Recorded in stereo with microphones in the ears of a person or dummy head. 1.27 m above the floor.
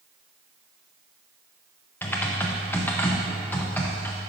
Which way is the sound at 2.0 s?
10° left (ahead or behind).